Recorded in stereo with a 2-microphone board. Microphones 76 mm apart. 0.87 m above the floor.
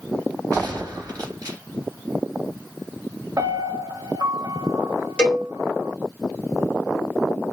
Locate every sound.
0.5 s a gunshot: 50° right (ahead or behind), 2.5 m
3.4 s a piano: 50° right (ahead or behind), 0.9 m
5.2 s a cowbell: 15° left (ahead or behind), 1.9 m